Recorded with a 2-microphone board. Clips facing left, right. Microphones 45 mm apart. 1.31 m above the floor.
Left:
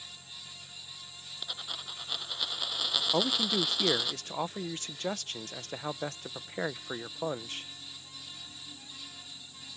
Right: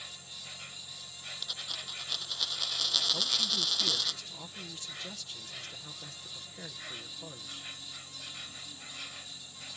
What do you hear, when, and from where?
0.0 s an insect: 55° right (ahead or behind)
1.4 s a dropped coin: 15° left (ahead or behind)
3.1 s a man speaking: 60° left (ahead or behind)